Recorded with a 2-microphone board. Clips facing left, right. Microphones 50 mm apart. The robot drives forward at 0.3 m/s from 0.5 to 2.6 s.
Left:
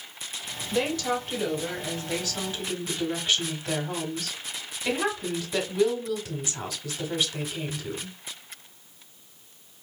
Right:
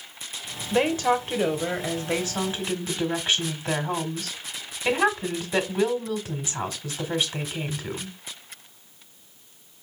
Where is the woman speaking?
30° right (ahead or behind), 1.0 m; by 8.2 s 25° right (ahead or behind), 1.1 m.